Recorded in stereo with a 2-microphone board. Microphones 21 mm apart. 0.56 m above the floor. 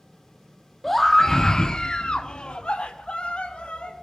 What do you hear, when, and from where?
0.8 s a scream: 5° left (ahead or behind), 0.9 m; by 4.0 s 65° left (ahead or behind), 2.0 m